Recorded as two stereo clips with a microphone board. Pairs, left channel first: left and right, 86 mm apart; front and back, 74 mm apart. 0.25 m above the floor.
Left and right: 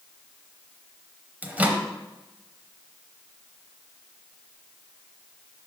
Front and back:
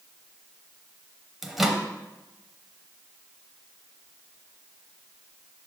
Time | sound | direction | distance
1.4 | a microwave | 100° right | 0.7 m